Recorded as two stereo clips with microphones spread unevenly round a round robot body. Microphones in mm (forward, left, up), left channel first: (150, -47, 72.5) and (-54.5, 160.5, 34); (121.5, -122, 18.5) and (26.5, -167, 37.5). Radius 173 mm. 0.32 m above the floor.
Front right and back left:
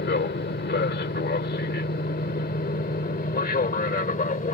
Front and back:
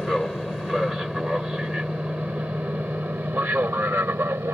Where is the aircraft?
55° right; by 4.5 s 100° right.